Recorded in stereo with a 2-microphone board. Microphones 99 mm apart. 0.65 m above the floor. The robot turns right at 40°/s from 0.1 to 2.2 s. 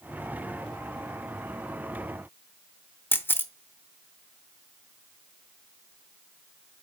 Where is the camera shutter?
20° left (ahead or behind), 0.6 m.